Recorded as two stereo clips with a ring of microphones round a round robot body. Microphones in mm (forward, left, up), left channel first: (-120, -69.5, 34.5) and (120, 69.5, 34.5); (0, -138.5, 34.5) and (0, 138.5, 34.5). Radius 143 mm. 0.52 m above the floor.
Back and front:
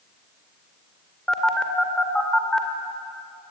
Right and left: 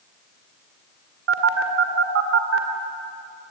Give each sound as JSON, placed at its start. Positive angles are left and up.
{"t": 1.3, "sound": "a phone buzzing", "azimuth_deg": 125, "distance_m": 2.0}